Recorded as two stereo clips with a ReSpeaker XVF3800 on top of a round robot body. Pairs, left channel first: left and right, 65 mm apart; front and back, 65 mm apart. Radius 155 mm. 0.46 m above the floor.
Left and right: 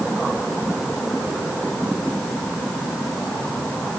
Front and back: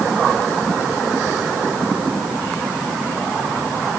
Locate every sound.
Only background noise.